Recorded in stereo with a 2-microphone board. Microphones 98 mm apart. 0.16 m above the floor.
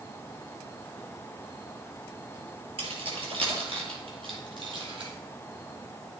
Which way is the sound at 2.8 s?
65° right (ahead or behind).